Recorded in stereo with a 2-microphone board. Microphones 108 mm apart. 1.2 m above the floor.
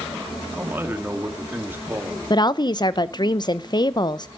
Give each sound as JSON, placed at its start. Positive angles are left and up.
{"t": 0.5, "sound": "a man speaking", "side_deg": -20, "distance_m": 2.5}
{"t": 2.3, "sound": "a woman speaking", "side_deg": 40, "distance_m": 0.7}